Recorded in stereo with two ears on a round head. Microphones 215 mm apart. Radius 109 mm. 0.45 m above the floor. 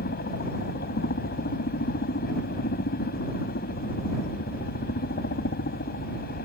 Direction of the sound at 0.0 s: 45° left (ahead or behind).